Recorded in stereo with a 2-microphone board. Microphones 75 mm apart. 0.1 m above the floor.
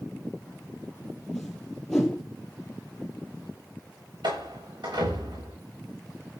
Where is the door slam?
85° right, 8.5 m.